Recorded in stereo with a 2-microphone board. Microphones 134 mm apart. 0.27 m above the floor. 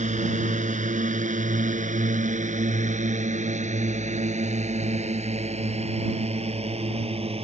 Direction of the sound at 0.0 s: 65° right (ahead or behind).